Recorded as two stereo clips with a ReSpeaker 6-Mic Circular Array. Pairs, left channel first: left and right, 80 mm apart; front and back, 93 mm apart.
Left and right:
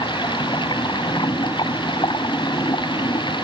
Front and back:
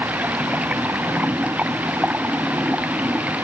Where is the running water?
105° left.